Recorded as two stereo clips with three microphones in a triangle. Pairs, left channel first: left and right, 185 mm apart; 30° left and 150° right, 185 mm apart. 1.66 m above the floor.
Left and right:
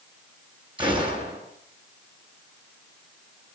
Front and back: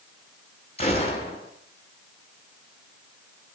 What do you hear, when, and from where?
0.8 s a gunshot: 25° right, 8 m